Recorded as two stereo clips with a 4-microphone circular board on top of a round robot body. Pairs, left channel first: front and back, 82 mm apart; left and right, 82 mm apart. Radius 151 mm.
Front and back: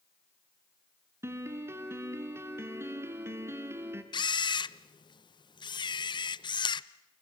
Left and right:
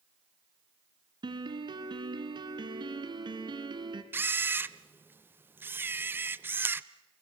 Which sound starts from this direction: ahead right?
A camera shutter, at 4.1 s.